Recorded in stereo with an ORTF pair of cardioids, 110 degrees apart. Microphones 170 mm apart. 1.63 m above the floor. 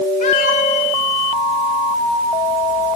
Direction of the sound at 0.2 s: 50° left.